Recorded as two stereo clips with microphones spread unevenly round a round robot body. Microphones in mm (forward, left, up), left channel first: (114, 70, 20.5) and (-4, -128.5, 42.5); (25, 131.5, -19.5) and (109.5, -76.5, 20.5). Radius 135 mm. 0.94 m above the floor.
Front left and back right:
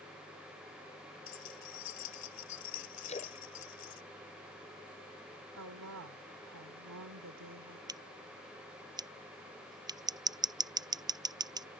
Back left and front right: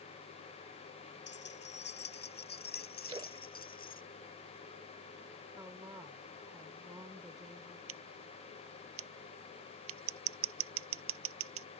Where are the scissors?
50° right.